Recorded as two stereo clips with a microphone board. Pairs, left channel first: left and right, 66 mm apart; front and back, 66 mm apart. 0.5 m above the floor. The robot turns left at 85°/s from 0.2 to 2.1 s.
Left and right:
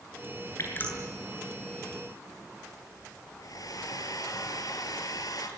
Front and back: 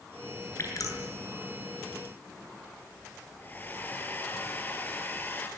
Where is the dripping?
45° left, 7.5 m; by 1.0 s 10° left, 7.5 m.